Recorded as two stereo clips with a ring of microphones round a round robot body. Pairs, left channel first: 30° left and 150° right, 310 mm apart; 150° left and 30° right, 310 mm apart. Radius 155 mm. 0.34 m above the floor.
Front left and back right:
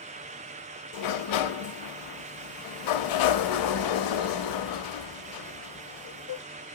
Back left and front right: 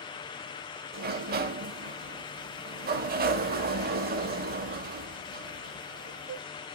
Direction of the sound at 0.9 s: 30° left.